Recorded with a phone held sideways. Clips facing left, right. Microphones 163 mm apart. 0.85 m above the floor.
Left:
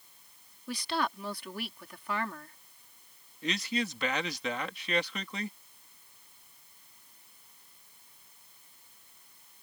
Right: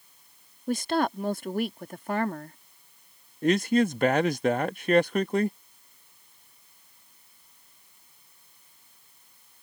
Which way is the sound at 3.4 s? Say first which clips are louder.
Right 11 dB; 50° right (ahead or behind).